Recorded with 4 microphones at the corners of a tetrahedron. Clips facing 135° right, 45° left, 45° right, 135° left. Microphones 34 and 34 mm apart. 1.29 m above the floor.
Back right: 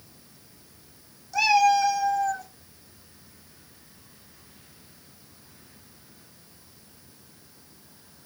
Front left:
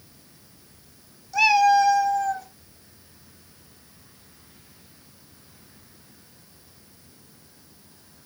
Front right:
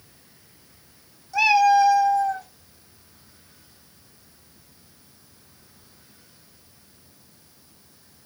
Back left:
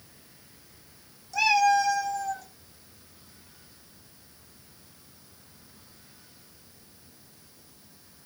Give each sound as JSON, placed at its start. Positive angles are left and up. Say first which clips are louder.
{"t": 1.3, "sound": "a cat meowing", "louder": "front left 3 dB, front right 5 dB", "azimuth_deg": -35, "distance_m": 0.9}